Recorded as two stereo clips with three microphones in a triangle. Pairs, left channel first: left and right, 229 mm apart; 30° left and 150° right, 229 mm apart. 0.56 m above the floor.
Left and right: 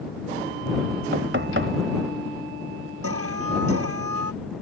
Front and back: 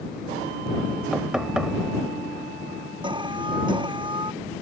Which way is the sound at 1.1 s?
65° right.